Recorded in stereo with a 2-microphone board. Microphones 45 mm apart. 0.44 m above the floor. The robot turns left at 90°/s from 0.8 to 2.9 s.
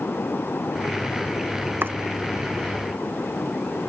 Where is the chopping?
50° right (ahead or behind); by 2.0 s 65° right (ahead or behind).